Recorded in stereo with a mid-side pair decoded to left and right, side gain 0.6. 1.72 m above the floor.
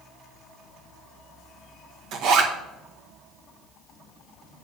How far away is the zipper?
About 1.9 m.